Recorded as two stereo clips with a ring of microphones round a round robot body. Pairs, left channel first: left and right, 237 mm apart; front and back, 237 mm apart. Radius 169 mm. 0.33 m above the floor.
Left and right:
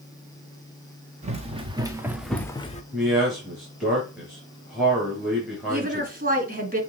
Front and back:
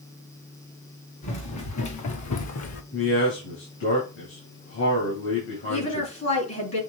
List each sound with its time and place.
1.2 s running footsteps: 25° right, 2.5 m; by 2.8 s 30° left, 1.2 m
2.9 s a man speaking: straight ahead, 4.5 m
5.7 s a woman speaking: 35° right, 3.5 m